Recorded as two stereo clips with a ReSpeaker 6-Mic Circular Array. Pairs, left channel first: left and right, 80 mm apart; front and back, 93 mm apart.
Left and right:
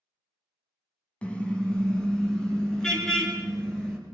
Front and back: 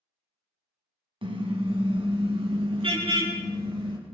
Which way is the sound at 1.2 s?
165° left.